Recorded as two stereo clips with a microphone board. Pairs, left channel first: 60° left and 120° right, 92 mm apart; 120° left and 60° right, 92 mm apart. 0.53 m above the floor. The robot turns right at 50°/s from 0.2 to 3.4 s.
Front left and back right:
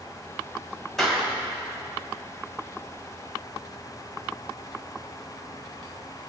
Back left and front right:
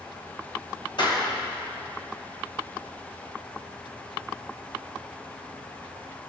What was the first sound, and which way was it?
A clap, 145° left.